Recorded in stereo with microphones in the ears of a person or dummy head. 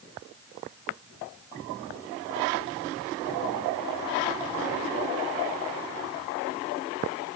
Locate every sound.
Only background noise.